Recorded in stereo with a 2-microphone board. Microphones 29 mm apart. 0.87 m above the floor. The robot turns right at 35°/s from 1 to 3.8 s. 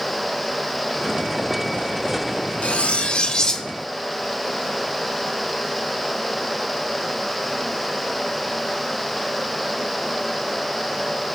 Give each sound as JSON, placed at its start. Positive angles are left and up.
{"t": 2.6, "sound": "cutlery clinking", "azimuth_deg": 130, "distance_m": 0.8}